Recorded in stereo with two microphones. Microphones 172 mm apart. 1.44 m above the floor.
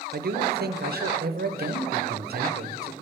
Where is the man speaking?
65° right (ahead or behind), 0.6 m.